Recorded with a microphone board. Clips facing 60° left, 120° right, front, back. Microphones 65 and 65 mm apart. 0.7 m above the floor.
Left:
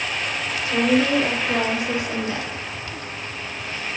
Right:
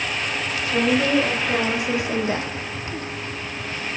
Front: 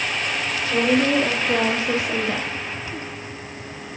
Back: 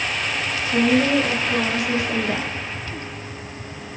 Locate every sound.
0.7 s a woman speaking: 30° right, 1.5 m; by 2.5 s 115° right, 0.6 m